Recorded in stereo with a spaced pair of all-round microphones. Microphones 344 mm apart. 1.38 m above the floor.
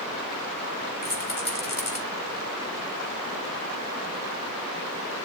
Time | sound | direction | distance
1.0 | a rattle | 70° left (ahead or behind) | 4.5 m